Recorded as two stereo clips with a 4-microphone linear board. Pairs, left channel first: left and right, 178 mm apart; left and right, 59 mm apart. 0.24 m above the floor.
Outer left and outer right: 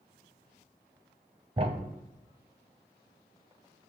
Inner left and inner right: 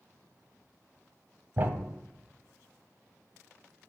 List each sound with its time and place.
1.6 s a thud: 35° right (ahead or behind), 0.7 m